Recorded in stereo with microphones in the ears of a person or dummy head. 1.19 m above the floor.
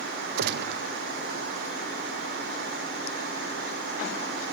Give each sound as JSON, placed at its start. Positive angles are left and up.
{"t": 0.4, "sound": "a gunshot", "side_deg": -65, "distance_m": 0.6}